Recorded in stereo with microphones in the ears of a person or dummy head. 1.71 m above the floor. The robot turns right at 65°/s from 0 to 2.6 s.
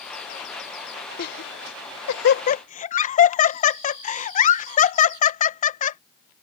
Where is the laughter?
50° left (ahead or behind); by 6.0 s 35° left (ahead or behind).